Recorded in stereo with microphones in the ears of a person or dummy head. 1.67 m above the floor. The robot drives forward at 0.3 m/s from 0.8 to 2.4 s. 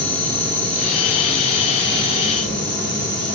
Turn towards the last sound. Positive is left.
turn(degrees=5)  # may be behind; listen again after turning